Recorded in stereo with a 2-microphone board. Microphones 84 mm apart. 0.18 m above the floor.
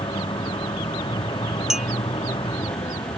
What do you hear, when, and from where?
0.0 s a vehicle: 75° left (ahead or behind)
1.7 s a clink: 5° right (ahead or behind)